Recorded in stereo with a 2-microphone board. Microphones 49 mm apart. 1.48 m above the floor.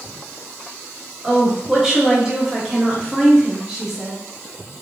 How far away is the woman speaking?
About 1.4 m.